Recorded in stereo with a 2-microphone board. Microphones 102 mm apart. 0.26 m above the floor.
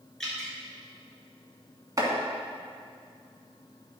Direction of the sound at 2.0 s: 30° right (ahead or behind).